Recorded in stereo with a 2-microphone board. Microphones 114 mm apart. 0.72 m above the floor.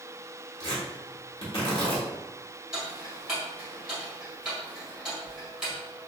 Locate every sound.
0.6 s tearing paper: 50° left (ahead or behind), 1.4 m
2.7 s ticking: 5° right (ahead or behind), 1.9 m